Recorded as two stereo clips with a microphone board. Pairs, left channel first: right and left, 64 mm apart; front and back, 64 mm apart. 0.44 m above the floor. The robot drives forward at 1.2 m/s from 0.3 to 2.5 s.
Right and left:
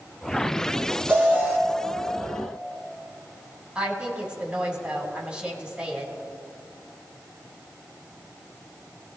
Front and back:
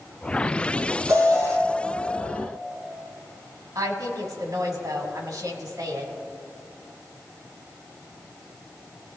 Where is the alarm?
145° left, 3.5 m; by 1.6 s 150° left, 4 m.